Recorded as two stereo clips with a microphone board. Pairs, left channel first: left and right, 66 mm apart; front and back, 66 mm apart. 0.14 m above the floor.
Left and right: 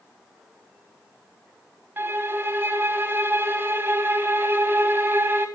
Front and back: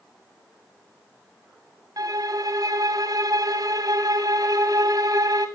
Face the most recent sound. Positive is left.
turn(degrees=-145)